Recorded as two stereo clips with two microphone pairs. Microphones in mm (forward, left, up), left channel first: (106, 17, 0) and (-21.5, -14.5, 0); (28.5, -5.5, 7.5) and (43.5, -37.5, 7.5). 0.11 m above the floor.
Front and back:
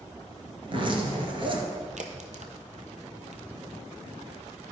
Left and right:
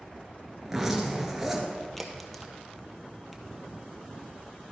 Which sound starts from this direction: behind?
A crack, at 2.0 s.